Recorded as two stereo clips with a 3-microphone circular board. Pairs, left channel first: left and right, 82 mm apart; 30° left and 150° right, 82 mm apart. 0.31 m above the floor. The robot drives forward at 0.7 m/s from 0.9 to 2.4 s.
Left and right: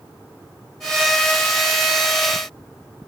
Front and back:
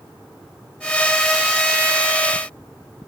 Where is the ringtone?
No ringtone in this recording.